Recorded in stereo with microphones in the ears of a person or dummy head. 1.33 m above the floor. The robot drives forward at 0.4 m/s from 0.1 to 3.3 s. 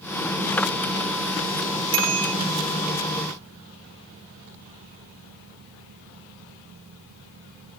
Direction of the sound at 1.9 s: 75° right (ahead or behind).